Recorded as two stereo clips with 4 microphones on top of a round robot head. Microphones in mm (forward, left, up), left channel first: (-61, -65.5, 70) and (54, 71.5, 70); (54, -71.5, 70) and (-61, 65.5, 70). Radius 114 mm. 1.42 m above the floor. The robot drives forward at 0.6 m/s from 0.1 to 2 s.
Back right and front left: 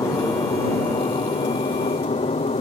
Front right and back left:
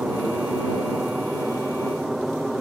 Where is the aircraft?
150° right; by 2.6 s 140° right.